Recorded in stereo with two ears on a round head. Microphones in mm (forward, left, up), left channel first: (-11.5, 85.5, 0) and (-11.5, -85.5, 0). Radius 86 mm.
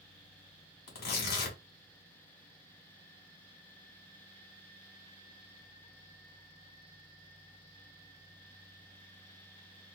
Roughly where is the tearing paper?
Left.